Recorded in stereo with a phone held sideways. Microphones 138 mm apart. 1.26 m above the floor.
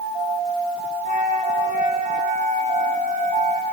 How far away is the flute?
About 4 m.